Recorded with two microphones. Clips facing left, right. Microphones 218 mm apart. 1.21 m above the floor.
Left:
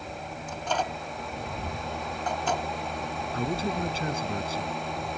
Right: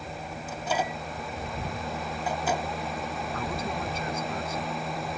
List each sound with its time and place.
0.5 s a microwave: 10° right (ahead or behind)
3.3 s a man speaking: 30° left (ahead or behind)